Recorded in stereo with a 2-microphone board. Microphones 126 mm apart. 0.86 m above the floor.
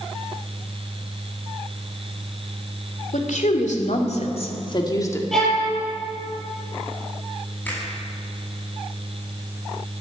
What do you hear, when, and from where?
3.1 s a woman speaking: 80° left, 3 m; by 5.2 s 20° left (ahead or behind), 1.9 m
5.3 s a violin: centre (ahead or behind), 7.5 m
7.7 s a finger snap: 10° left (ahead or behind), 7 m